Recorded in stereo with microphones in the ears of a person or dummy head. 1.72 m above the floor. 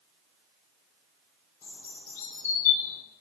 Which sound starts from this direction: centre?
A bird, at 1.6 s.